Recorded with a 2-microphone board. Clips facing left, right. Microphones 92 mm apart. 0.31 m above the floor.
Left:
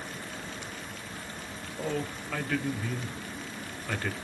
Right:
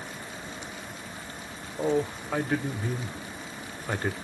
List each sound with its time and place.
1.8 s a man speaking: 25° right (ahead or behind), 1.1 m